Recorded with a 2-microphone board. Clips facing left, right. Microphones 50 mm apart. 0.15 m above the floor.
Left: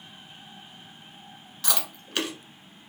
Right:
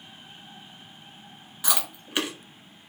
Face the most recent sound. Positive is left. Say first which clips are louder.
# right 2 dB
turn(degrees=-10)  # may be behind; listen again after turning